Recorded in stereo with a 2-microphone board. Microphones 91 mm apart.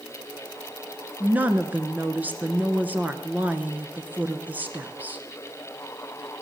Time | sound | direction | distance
1.2 | a woman speaking | 20° right (ahead or behind) | 1.1 m